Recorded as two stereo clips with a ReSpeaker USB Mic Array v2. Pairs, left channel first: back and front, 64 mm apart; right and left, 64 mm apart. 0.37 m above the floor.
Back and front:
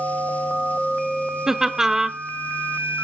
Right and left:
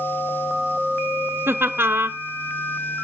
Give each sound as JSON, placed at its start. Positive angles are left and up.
{"t": 1.5, "sound": "laughter", "azimuth_deg": 80, "distance_m": 1.1}